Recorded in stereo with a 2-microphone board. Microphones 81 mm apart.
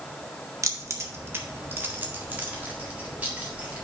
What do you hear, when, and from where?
0.6 s keys jangling: 40° right (ahead or behind), 0.9 m; by 3.9 s 15° right (ahead or behind), 2.5 m